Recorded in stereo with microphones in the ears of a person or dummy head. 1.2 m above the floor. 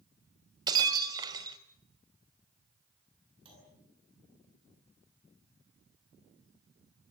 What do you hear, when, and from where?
0.7 s breaking glass: 25° right (ahead or behind), 2.5 m
3.5 s a clunk: 35° right (ahead or behind), 10 m